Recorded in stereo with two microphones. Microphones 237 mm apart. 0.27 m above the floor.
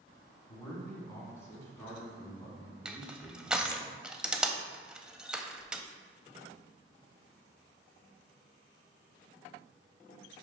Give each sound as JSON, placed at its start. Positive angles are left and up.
{"t": 0.5, "sound": "a man speaking", "side_deg": 15, "distance_m": 2.0}
{"t": 2.9, "sound": "crushing", "side_deg": -5, "distance_m": 0.6}